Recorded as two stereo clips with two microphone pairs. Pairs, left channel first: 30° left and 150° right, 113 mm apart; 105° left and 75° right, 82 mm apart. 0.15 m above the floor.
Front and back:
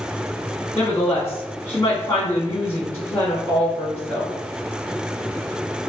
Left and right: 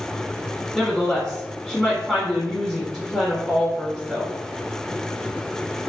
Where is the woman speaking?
Straight ahead, 1.3 m.